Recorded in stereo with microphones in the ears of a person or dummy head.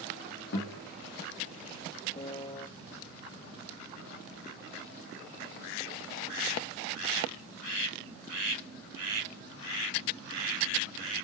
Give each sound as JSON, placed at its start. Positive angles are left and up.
{"t": 0.5, "sound": "a guitar", "side_deg": 60, "distance_m": 1.9}
{"t": 2.1, "sound": "a piano", "side_deg": 30, "distance_m": 0.5}